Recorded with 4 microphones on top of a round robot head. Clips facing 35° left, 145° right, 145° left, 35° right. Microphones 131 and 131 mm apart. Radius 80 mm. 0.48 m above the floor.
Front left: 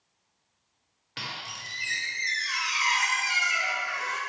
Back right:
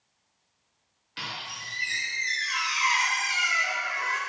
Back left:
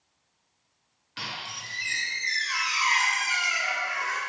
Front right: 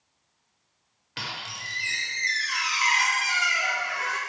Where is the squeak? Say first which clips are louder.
Back right 1 dB, front right 1 dB; straight ahead, 0.7 m.